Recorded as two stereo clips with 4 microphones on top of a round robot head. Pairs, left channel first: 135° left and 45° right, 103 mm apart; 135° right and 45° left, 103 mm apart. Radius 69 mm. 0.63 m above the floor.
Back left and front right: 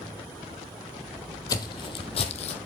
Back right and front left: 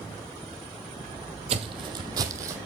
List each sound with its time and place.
1.5 s footsteps: 80° left, 0.9 m; by 2.6 s 110° left, 1.2 m